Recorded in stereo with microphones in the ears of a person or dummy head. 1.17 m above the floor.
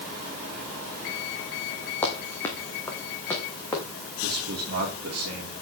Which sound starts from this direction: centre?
Running footsteps, at 2.0 s.